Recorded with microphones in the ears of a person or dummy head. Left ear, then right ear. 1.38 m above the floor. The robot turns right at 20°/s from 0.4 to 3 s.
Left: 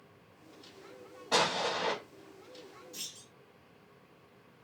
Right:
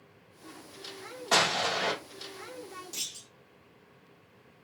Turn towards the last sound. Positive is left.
turn(degrees=-75)  # may be behind; listen again after turning